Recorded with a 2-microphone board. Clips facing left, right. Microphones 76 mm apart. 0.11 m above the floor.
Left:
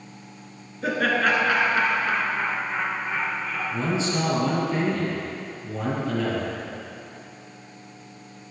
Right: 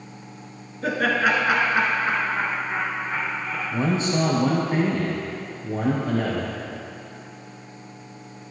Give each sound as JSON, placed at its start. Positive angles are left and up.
{"t": 0.8, "sound": "laughter", "side_deg": 0, "distance_m": 1.8}
{"t": 3.7, "sound": "a man speaking", "side_deg": -50, "distance_m": 2.5}